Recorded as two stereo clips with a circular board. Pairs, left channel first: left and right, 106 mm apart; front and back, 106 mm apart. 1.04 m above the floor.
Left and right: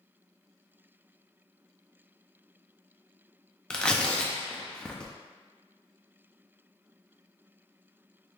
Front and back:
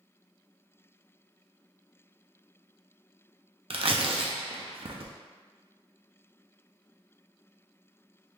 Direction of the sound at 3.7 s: 170° left.